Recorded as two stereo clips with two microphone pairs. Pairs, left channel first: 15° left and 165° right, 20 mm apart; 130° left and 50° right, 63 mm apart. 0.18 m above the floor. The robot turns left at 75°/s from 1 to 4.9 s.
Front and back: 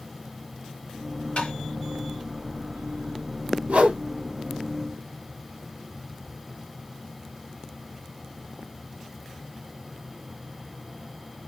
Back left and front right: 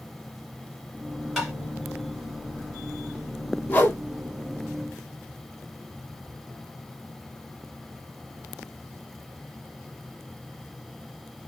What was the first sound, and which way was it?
Tapping, 35° left.